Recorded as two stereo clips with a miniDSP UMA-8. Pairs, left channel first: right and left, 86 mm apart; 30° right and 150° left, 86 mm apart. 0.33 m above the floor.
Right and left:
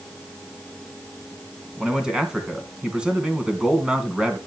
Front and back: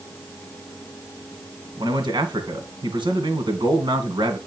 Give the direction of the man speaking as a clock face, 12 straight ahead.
6 o'clock.